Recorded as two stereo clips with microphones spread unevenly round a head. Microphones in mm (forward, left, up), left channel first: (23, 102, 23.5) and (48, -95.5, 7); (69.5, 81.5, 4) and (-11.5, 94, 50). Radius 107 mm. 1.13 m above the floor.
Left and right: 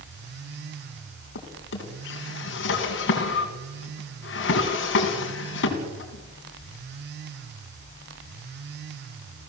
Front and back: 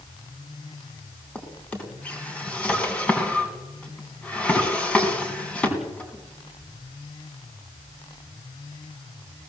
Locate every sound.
1.4 s a drawer: 75° left, 3.5 m